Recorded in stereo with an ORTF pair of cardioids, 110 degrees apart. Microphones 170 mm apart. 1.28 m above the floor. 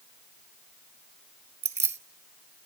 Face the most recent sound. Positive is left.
turn(degrees=-40)